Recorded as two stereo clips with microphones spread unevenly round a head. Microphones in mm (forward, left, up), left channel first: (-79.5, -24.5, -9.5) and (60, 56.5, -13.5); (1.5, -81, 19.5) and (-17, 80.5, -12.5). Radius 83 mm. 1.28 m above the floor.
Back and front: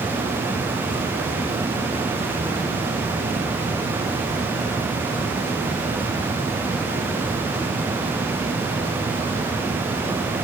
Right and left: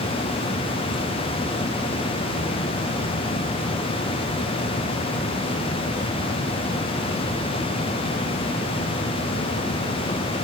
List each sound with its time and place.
Only background noise.